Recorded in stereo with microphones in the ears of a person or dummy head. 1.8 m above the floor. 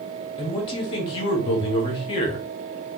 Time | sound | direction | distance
0.4 | a man speaking | 35° left (ahead or behind) | 1.0 m